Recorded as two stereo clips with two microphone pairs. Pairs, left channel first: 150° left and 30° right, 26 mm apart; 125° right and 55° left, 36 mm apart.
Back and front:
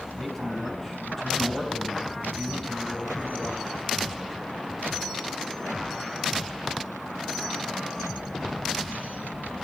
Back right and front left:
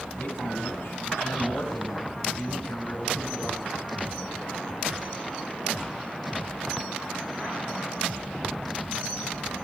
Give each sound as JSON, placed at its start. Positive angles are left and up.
{"t": 0.1, "sound": "a man speaking", "azimuth_deg": -130, "distance_m": 9.0}